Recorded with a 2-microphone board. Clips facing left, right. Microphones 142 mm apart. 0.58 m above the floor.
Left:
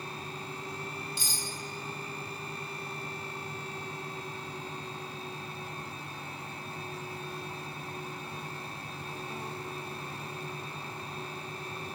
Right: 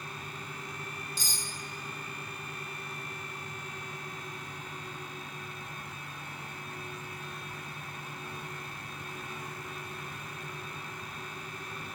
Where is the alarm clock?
No alarm clock in this recording.